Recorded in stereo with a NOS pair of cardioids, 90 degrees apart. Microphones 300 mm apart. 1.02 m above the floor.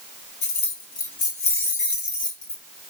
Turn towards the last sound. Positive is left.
turn(degrees=20)